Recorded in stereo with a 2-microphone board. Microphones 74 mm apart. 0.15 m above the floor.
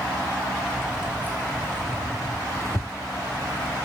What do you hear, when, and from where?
0.7 s keys jangling: 5° right (ahead or behind), 1.8 m; by 3.8 s 65° right (ahead or behind), 1.8 m